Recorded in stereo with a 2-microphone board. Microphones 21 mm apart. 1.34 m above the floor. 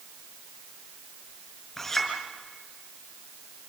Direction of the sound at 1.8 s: 15° left (ahead or behind).